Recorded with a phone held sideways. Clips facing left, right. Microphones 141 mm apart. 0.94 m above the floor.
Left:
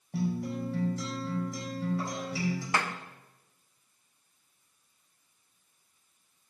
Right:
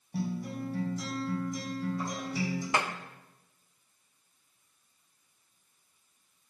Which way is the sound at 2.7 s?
20° right (ahead or behind).